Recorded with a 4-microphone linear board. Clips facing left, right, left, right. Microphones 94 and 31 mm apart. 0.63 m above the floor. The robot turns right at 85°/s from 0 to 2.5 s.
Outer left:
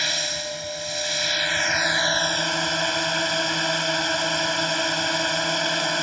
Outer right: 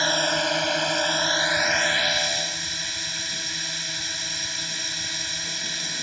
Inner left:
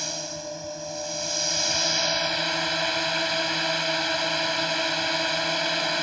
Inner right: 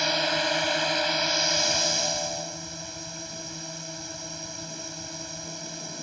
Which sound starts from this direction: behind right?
A drone, at 0.0 s.